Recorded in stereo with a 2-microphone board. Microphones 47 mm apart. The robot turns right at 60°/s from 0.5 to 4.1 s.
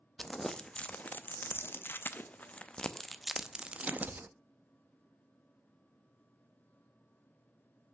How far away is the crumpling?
About 0.5 m.